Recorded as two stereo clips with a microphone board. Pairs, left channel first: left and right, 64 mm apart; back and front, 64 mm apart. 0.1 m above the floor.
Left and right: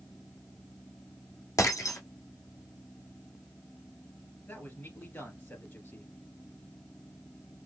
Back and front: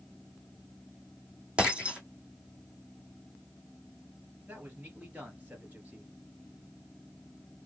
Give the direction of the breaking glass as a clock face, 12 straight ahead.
10 o'clock.